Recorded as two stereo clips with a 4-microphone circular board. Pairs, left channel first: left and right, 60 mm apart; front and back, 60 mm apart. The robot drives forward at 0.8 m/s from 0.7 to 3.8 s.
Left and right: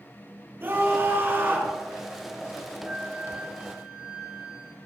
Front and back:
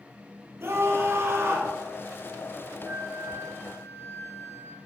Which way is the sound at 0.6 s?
140° right.